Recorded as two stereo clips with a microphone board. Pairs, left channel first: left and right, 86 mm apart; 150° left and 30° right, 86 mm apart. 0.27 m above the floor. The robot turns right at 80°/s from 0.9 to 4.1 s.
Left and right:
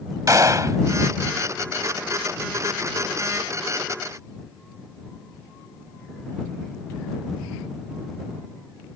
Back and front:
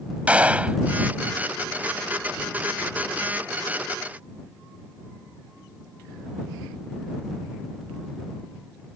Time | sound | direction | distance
0.3 | a gunshot | 95° right | ?